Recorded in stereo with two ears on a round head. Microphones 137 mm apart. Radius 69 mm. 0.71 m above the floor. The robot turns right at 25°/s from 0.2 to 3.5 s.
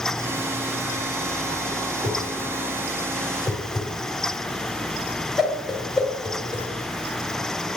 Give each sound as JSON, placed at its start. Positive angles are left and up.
{"t": 2.0, "sound": "a whoosh", "side_deg": -35, "distance_m": 2.0}